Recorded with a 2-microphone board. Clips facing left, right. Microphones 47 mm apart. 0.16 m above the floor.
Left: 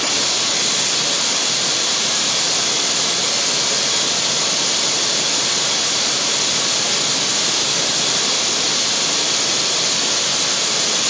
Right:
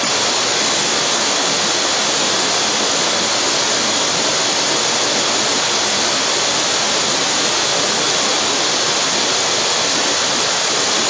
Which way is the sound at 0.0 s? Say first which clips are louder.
Right 4 dB; 70° right (ahead or behind).